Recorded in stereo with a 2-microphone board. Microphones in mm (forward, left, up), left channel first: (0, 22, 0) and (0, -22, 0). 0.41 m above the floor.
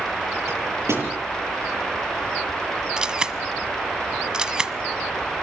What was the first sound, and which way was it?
A microwave, 85° right.